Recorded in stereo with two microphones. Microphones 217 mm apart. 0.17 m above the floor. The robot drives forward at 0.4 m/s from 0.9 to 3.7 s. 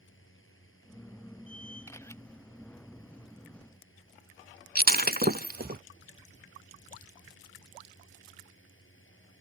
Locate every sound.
0.0 s a drone: 60° left (ahead or behind)
1.9 s a camera shutter: 10° left (ahead or behind)
4.8 s breaking glass: 45° right (ahead or behind)